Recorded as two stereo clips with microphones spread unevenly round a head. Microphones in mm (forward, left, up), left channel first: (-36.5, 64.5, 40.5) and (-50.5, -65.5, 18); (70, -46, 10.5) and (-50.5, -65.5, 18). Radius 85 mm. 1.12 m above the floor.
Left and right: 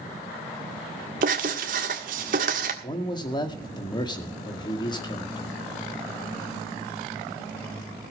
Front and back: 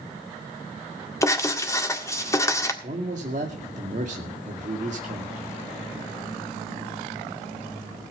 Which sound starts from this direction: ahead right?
Writing, at 1.2 s.